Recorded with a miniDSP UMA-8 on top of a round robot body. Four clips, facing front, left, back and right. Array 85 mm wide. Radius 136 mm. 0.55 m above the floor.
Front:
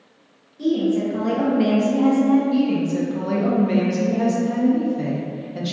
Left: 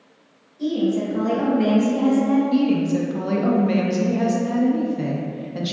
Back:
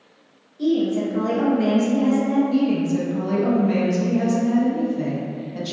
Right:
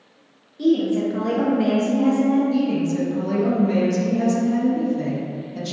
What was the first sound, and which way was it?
A woman speaking, 85° right.